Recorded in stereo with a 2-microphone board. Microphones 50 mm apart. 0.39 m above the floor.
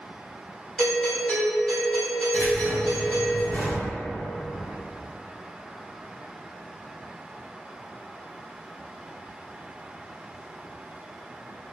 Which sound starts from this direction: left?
Keys jangling, at 2.3 s.